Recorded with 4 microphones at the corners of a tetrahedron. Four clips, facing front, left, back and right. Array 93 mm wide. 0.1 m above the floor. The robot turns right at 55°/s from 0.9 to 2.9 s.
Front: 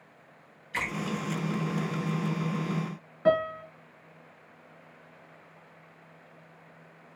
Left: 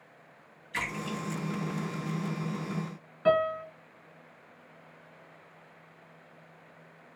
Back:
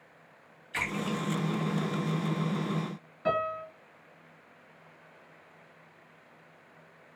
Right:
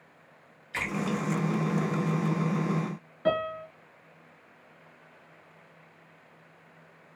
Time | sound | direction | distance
0.7 | a splash | 65° right | 1.7 m
3.2 | a piano | 25° right | 0.7 m